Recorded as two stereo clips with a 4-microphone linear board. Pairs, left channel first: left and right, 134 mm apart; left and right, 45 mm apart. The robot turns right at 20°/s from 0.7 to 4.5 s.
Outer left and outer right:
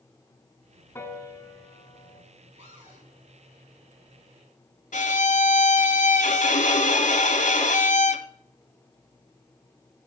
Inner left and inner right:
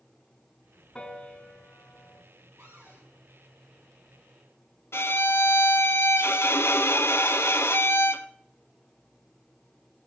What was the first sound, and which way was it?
A piano, 20° left (ahead or behind).